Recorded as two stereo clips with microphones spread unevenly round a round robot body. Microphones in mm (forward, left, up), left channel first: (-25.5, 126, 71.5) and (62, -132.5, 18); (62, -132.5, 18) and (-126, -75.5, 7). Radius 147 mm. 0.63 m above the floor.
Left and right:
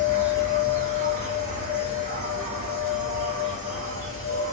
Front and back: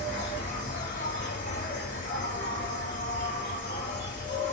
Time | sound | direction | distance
0.0 | an insect | 25° right | 2.5 m